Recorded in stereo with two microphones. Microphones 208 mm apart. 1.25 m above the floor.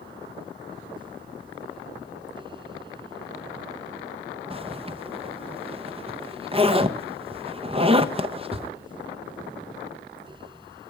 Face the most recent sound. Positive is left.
turn(degrees=-25)  # may be behind; listen again after turning